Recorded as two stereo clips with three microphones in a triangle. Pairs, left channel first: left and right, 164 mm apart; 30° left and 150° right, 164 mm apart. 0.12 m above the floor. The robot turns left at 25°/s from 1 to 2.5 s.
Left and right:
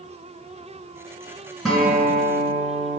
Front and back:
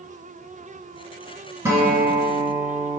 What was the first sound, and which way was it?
A guitar, 175° left.